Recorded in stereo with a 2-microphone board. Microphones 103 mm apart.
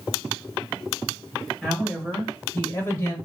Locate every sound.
1.6 s a woman speaking: 5° right (ahead or behind), 1.1 m; by 3.1 s 30° left (ahead or behind), 1.1 m